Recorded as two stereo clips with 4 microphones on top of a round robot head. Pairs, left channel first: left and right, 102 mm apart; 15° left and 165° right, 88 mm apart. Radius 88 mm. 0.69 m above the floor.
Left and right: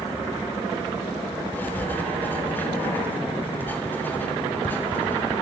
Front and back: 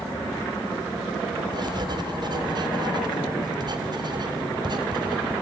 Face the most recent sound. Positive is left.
turn(degrees=165)